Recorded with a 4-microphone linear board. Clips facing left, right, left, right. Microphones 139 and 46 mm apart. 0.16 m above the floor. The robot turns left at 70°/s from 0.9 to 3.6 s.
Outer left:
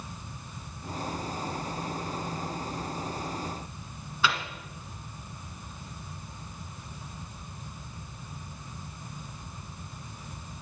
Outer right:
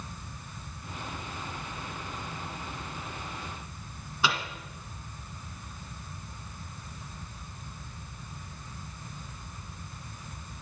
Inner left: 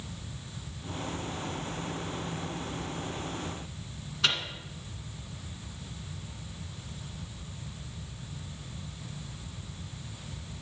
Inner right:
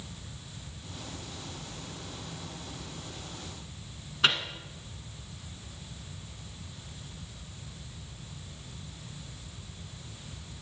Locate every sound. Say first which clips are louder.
4.2 s a microwave: outer left 1 dB, inner right 3 dB; 15° right (ahead or behind), 1.5 m